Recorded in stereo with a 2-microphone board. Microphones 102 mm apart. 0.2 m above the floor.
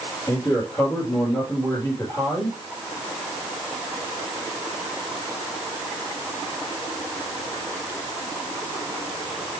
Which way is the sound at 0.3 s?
15° left (ahead or behind).